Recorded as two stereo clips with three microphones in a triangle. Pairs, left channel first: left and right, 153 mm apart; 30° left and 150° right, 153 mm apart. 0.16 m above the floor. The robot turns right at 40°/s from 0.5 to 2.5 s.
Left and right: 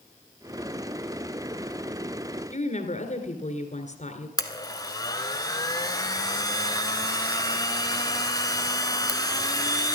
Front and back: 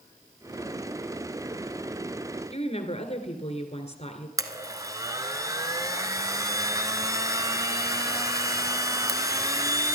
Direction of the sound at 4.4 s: 150° left.